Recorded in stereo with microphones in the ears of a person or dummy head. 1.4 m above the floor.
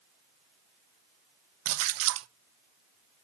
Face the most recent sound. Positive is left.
turn(degrees=-70)  # may be behind; listen again after turning